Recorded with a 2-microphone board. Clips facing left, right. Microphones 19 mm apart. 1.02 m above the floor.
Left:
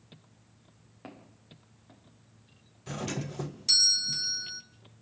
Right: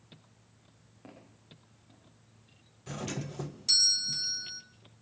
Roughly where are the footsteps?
Left.